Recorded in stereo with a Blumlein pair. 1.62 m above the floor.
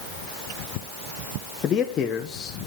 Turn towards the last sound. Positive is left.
turn(degrees=25)